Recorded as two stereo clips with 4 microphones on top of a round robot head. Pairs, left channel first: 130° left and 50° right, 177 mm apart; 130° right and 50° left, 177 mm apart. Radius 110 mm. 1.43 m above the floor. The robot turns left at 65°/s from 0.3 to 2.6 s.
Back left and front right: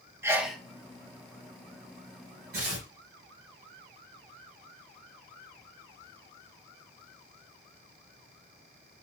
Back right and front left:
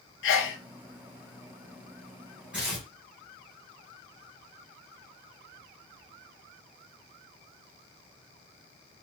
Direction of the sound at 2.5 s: 30° right.